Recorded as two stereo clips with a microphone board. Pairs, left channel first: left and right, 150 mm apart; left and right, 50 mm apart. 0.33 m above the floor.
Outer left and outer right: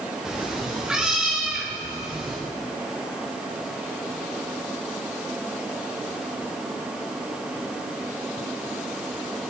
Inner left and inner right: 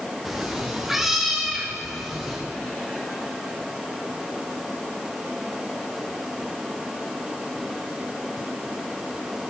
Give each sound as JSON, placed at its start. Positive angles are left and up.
{"t": 0.2, "sound": "a cat meowing", "side_deg": -5, "distance_m": 6.0}